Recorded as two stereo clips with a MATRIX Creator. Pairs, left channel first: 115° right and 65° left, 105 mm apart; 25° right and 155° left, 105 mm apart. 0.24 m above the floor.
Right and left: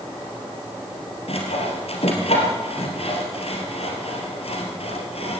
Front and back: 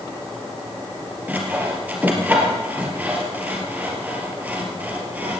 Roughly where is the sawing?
Behind right.